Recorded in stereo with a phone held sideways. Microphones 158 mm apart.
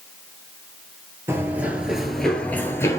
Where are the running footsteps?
15° right (ahead or behind), 1.2 m; by 3.0 s 20° left (ahead or behind), 1.2 m.